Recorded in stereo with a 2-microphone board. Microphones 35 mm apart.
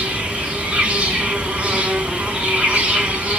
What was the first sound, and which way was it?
An insect, 50° right (ahead or behind).